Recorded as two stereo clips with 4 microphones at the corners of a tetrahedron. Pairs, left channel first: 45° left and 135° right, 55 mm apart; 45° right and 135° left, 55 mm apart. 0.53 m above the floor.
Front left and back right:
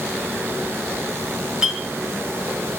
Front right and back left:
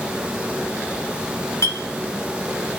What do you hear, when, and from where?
1.6 s a clink: 60° right, 2.5 m